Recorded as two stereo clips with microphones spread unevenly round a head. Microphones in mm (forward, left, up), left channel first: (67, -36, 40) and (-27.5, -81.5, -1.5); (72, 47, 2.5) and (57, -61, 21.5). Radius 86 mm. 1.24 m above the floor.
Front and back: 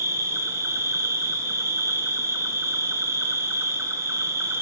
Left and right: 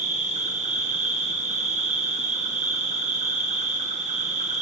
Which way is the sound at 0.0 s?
105° right.